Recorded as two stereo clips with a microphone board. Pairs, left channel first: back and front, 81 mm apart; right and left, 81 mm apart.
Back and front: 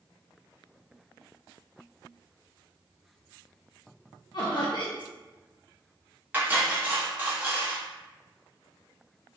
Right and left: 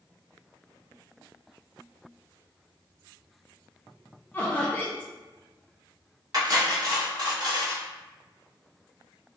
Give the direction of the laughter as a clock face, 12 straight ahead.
5 o'clock.